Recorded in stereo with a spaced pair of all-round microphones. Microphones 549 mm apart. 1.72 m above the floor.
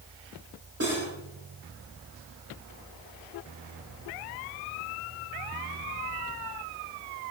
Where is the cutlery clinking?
25° right (ahead or behind), 3 m.